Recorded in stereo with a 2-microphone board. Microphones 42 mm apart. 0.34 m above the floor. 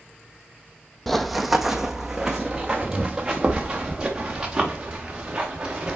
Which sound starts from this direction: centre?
Running footsteps, at 1.1 s.